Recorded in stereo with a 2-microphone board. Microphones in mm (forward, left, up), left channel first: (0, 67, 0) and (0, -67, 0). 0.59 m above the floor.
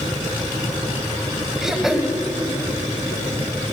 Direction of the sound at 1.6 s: 5° right (ahead or behind).